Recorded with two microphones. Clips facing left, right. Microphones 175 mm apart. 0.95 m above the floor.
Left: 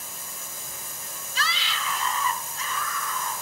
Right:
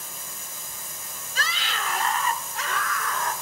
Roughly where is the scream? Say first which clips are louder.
Right 1 dB; right.